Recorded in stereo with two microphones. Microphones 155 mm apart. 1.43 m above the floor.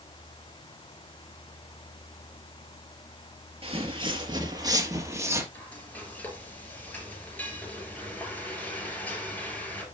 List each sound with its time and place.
3.6 s footsteps: 40° right (ahead or behind), 1.9 m; by 5.4 s 15° right (ahead or behind), 2.5 m
5.5 s frying: 10° left (ahead or behind), 5 m